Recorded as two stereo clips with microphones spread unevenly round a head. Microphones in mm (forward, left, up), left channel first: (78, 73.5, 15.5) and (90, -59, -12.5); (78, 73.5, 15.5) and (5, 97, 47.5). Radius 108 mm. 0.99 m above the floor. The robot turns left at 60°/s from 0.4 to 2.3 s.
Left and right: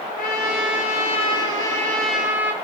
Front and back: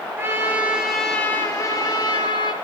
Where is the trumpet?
110° left, 5 m; by 2.5 s 5° right, 5 m.